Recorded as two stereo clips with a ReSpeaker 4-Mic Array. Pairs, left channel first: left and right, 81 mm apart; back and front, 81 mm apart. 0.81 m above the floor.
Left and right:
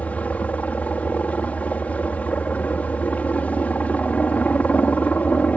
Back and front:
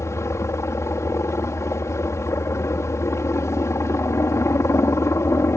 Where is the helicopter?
155° left.